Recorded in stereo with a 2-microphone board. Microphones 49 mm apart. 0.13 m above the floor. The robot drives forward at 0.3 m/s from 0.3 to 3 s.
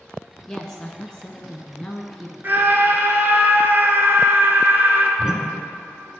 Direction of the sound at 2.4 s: 45° right (ahead or behind).